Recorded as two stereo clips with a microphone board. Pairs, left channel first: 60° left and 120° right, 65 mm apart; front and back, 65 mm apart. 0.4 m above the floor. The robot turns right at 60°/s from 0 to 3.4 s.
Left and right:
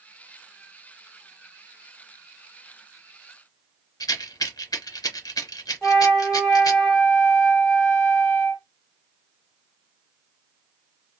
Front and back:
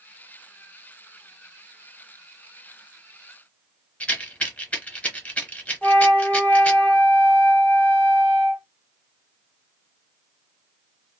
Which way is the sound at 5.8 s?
5° right.